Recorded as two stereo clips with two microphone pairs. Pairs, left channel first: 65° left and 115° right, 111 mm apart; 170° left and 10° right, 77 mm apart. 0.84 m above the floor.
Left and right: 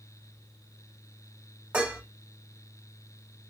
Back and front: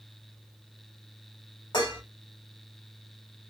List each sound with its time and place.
1.7 s dishes clattering: 165° left, 1.6 m